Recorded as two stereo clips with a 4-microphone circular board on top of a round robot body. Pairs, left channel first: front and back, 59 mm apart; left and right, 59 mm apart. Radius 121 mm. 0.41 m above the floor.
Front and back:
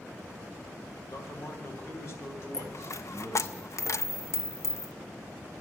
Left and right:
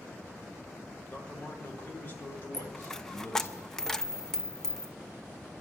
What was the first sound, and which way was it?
A man speaking, 25° left.